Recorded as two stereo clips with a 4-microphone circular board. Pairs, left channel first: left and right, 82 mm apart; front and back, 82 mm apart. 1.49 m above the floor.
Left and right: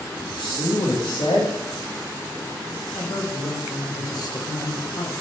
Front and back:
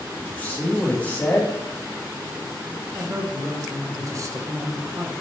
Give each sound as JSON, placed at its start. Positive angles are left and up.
{"t": 0.2, "sound": "a man speaking", "azimuth_deg": 75, "distance_m": 1.7}
{"t": 2.9, "sound": "a woman speaking", "azimuth_deg": 130, "distance_m": 1.2}